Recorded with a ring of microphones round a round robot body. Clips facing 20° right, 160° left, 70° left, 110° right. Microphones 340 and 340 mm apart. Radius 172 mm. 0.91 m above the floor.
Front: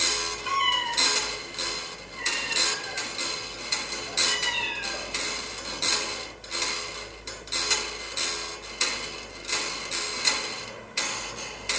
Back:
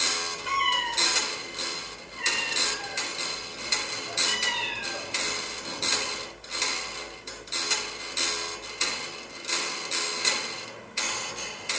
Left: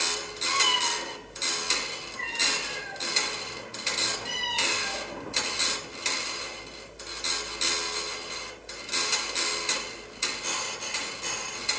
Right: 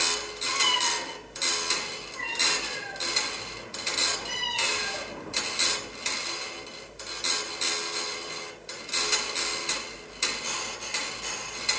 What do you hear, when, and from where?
0.5 s a cat meowing: 15° right, 2.5 m; by 5.1 s 5° left, 5 m